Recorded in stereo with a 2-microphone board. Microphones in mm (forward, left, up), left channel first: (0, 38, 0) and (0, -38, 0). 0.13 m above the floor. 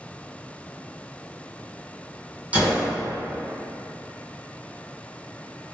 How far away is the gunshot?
About 1.1 m.